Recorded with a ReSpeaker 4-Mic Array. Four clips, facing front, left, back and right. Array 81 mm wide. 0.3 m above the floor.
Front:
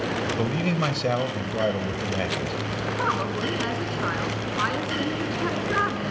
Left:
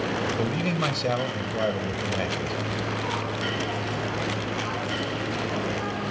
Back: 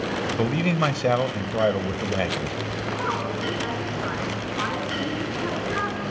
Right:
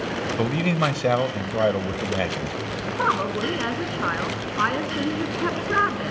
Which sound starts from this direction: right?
A woman speaking, at 3.0 s.